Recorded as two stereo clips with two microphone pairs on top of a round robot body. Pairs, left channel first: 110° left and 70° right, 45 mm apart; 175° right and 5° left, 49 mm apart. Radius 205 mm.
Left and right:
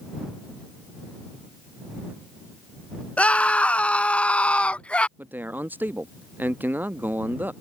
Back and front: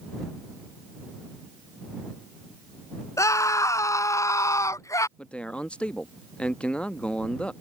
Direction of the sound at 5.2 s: 105° right.